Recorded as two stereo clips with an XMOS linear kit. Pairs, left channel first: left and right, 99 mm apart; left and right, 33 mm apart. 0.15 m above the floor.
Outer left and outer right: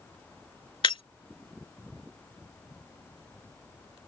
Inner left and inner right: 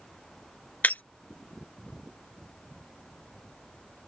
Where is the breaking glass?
60° left (ahead or behind).